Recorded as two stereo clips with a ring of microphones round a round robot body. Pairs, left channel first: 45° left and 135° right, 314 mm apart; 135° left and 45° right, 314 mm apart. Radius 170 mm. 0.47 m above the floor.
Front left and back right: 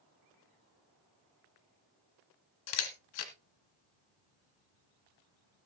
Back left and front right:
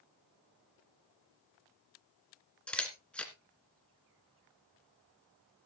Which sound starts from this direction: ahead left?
A camera shutter, at 2.7 s.